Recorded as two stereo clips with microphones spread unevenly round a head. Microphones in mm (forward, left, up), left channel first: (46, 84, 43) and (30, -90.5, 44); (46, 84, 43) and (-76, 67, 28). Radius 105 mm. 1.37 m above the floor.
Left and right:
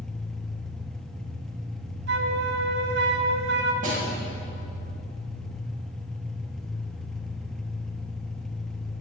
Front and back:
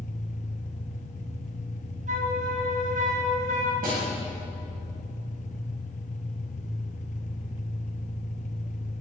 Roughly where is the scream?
I don't hear a scream.